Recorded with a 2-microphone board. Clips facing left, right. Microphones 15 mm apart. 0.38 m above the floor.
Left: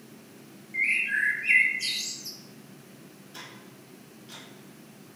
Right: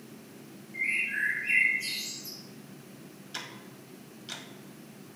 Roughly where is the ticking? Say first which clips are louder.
Right 4 dB; right.